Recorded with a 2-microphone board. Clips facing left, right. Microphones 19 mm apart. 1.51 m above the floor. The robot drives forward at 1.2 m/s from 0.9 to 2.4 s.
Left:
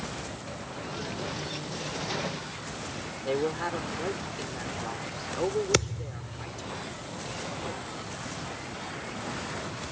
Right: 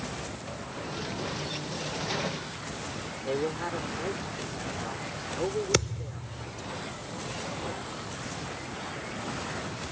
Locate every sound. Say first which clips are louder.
3.2 s a man speaking: left 2 dB; 15° left (ahead or behind)
5.7 s a thud: left 1 dB; 10° left (ahead or behind)